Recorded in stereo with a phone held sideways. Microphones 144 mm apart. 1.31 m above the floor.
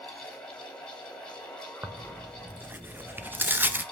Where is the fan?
5° left (ahead or behind), 3 m.